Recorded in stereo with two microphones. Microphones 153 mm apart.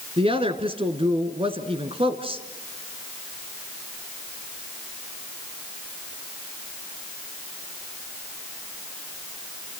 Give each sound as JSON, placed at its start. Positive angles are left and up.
{"t": 0.2, "sound": "a woman speaking", "side_deg": -40, "distance_m": 2.0}